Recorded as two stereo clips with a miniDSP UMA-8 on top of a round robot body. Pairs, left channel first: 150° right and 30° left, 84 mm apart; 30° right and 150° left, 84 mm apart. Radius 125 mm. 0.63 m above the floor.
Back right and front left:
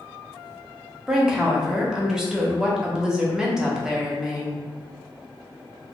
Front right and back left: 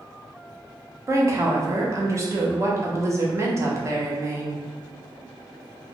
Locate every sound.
1.1 s a woman speaking: 110° left, 0.9 m